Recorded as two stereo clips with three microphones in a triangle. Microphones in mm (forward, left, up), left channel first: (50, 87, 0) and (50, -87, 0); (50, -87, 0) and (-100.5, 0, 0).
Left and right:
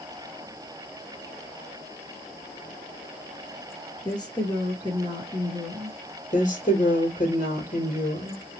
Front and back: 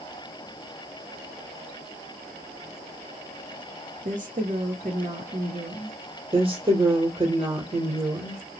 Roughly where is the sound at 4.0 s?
Behind left.